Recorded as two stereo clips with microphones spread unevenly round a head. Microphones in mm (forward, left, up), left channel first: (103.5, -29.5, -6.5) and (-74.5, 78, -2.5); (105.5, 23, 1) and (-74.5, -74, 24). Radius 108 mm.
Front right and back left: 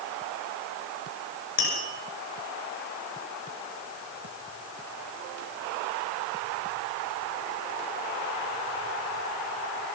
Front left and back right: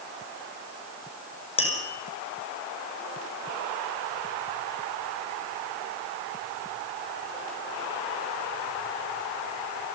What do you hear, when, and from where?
1.6 s tapping: 35° right, 6 m